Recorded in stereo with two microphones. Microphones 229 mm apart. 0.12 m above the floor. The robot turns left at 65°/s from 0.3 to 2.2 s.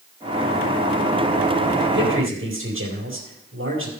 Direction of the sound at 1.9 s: 50° right (ahead or behind).